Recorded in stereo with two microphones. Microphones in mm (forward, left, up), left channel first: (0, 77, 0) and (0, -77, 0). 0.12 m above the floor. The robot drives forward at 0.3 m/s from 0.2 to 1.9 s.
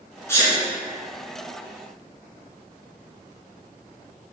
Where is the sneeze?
20° left (ahead or behind), 1.1 m.